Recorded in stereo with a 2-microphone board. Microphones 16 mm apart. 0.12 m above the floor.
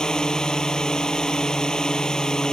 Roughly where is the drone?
Left.